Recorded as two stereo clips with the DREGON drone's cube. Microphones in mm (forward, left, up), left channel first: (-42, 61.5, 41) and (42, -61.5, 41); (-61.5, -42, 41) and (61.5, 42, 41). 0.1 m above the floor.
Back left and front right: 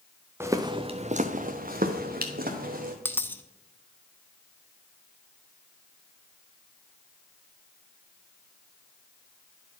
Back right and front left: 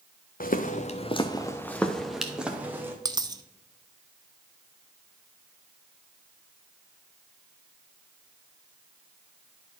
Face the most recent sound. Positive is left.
turn(degrees=60)